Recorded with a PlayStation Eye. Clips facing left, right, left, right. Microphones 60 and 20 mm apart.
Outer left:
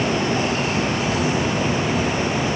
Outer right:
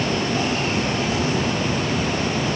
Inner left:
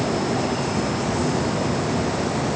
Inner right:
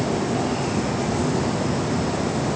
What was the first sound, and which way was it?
Only background noise.